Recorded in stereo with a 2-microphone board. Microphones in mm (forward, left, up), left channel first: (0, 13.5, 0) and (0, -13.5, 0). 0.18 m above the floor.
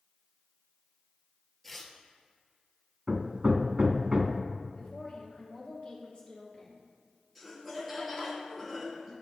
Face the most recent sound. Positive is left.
turn(degrees=0)  # may be behind; listen again after turning